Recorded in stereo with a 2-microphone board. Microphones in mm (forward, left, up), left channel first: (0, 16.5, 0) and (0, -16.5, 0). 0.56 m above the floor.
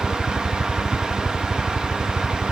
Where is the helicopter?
20° left (ahead or behind).